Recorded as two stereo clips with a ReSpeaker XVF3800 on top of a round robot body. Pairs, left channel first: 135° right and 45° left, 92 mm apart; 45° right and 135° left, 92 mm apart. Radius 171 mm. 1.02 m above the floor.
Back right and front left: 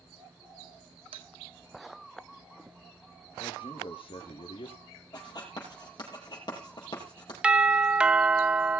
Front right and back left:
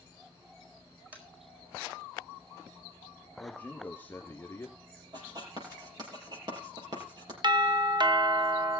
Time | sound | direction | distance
1.1 | tapping | 60° left | 4 m
3.4 | a man speaking | 115° right | 3 m
5.1 | writing | straight behind | 6 m
7.4 | a doorbell | 120° left | 1.6 m